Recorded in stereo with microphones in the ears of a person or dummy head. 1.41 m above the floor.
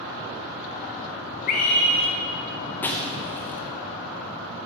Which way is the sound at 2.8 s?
10° left (ahead or behind).